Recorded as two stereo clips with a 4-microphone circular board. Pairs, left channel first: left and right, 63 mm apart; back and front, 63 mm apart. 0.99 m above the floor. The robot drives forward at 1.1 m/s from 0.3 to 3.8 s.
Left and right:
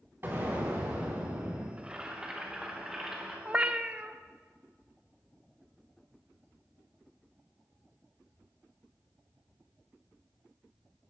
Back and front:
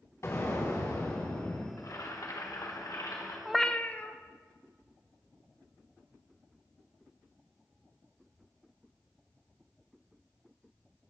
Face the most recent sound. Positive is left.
turn(degrees=-145)